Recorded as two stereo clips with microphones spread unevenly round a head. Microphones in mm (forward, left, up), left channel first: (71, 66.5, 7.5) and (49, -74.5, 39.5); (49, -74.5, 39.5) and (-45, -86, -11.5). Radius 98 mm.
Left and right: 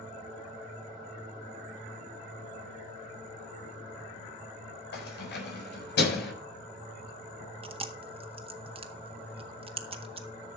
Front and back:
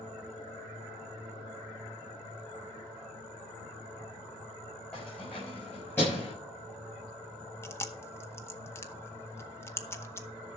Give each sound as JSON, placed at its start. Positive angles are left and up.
{"t": 4.9, "sound": "keys jangling", "azimuth_deg": 90, "distance_m": 5.5}
{"t": 7.6, "sound": "chewing", "azimuth_deg": -50, "distance_m": 1.7}